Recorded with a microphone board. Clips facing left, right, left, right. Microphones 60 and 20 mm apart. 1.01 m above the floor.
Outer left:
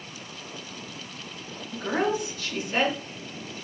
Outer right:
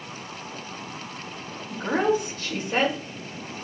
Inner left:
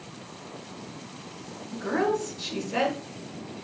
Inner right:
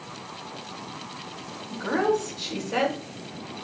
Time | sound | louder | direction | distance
1.7 | a woman speaking | outer right 3 dB, inner right 2 dB | 50° right (ahead or behind) | 1.6 m